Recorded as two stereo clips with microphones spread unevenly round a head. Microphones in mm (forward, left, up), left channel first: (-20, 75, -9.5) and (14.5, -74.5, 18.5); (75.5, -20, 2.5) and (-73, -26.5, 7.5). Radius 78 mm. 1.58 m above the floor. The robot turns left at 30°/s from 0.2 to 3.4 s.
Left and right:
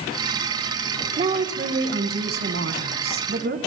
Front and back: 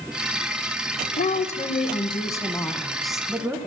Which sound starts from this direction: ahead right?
A woman speaking, at 1.2 s.